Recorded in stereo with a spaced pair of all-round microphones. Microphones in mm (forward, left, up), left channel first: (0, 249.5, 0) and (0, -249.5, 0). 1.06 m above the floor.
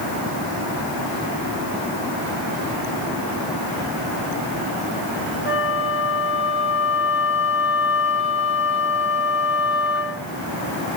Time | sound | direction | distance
5.5 | a flute | 20° left (ahead or behind) | 1.2 m